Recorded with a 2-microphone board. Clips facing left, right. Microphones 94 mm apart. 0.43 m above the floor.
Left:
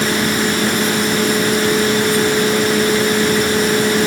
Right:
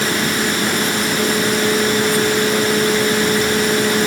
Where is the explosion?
No explosion in this recording.